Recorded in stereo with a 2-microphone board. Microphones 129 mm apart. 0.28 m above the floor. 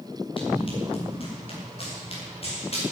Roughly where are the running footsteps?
Left.